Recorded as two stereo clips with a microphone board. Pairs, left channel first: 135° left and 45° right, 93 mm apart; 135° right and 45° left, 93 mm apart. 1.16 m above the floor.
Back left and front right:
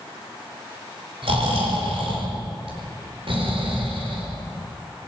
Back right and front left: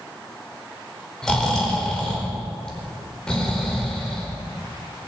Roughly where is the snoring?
Ahead right.